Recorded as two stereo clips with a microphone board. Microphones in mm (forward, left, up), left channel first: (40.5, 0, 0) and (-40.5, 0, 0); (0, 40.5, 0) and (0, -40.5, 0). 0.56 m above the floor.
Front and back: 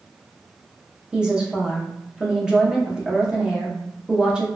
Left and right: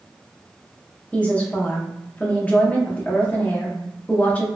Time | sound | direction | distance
1.1 | a woman speaking | 125° left | 0.6 m